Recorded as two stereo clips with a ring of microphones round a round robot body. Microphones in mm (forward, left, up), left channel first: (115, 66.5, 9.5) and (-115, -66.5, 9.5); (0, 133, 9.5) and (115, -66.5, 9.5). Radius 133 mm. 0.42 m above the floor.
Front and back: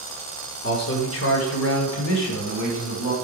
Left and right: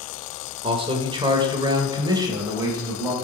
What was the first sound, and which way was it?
A man speaking, 5° right.